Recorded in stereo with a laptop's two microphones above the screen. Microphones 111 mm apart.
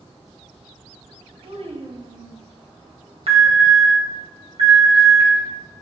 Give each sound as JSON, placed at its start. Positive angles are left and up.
{"t": 1.4, "sound": "a child speaking", "side_deg": -55, "distance_m": 0.7}
{"t": 3.3, "sound": "an alarm", "side_deg": -60, "distance_m": 1.2}